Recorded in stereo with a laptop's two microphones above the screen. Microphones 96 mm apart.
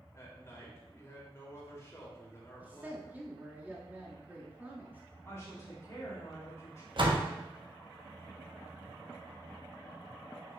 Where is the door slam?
55° right (ahead or behind), 1.1 m.